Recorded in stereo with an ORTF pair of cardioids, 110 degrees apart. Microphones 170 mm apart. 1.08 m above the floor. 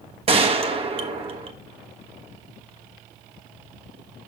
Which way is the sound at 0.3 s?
35° right.